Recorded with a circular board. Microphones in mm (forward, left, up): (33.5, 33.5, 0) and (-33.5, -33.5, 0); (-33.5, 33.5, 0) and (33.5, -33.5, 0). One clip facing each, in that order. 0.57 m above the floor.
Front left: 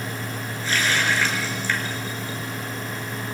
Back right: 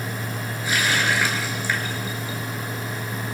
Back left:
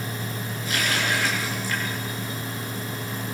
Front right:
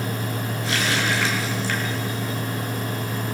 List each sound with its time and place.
0.6 s a running tap: 55° right, 6 m